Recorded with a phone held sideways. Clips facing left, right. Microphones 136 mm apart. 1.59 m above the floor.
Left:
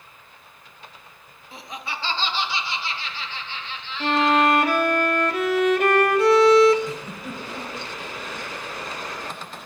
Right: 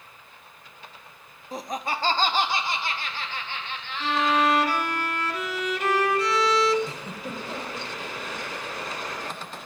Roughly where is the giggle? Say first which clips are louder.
Left 3 dB; right.